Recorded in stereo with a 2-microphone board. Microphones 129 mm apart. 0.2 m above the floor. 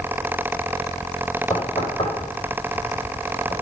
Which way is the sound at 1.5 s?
50° left (ahead or behind).